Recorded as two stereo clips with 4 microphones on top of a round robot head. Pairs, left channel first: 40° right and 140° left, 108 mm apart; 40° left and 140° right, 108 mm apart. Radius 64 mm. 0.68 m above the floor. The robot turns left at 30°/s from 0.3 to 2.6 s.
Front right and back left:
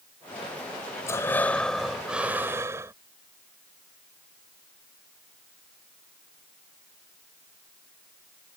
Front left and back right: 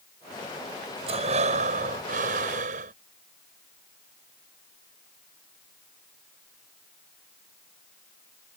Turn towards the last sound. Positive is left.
turn(degrees=-150)